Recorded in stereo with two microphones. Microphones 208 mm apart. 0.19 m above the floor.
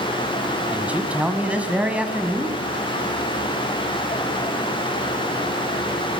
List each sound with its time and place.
0.7 s a man speaking: 5° right (ahead or behind), 1.1 m